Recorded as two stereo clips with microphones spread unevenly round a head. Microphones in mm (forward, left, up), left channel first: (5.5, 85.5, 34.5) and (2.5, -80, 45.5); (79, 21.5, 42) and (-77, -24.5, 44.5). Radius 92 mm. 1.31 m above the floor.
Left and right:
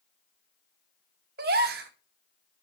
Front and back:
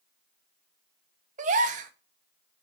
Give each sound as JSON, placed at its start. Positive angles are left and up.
{"t": 1.4, "sound": "a gasp", "azimuth_deg": -120, "distance_m": 0.9}